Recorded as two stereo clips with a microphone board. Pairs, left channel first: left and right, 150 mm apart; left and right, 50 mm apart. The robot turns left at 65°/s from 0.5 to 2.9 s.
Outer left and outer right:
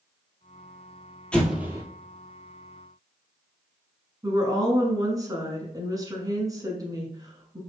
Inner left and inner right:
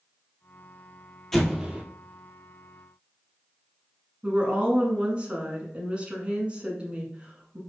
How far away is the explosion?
About 1.0 m.